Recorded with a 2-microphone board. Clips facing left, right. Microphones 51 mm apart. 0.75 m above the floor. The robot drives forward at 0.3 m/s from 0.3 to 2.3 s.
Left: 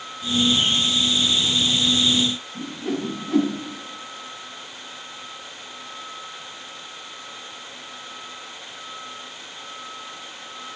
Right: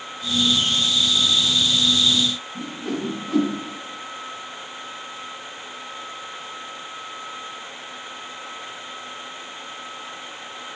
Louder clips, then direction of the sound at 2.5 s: Left 1 dB; 5° left (ahead or behind).